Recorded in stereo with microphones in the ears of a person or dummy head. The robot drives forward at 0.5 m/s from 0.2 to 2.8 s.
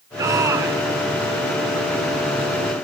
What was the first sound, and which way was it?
A shout, 15° right (ahead or behind).